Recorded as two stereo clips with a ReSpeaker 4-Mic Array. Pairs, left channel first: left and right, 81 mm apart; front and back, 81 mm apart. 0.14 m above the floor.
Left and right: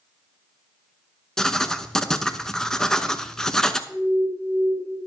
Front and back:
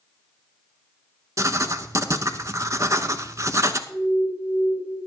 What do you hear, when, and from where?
1.4 s writing: 170° left, 0.6 m
3.9 s an alarm: 130° left, 2.5 m